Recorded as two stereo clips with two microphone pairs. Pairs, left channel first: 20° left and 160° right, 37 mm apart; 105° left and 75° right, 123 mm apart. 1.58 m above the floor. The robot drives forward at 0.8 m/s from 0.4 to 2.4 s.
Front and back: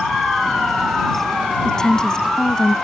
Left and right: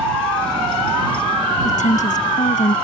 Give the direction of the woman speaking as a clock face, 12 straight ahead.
9 o'clock.